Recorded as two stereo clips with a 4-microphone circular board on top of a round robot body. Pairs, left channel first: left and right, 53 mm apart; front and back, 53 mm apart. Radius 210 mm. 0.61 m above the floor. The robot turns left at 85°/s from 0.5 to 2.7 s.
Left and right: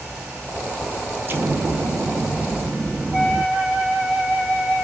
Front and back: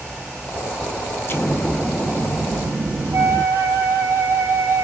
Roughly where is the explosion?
Ahead right.